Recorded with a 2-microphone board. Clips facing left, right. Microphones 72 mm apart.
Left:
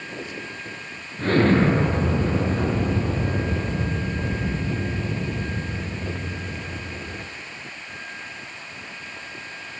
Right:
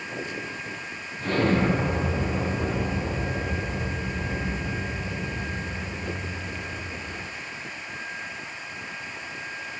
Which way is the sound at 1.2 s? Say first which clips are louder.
Left 5 dB; 60° left (ahead or behind).